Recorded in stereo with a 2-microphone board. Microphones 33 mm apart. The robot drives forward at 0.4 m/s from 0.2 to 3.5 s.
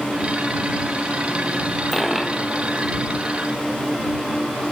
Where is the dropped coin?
Centre (ahead or behind), 1.4 m.